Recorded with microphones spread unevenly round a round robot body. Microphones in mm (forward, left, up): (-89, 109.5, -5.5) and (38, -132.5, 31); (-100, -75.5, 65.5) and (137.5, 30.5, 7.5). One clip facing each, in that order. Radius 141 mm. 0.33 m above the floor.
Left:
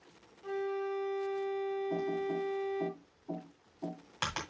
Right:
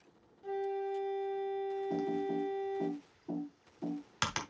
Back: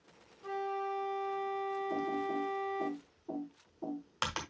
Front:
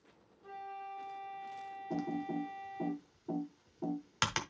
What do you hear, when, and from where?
0.4 s a flute: straight behind, 0.8 m
1.9 s typing on a keyboard: 5° right, 1.8 m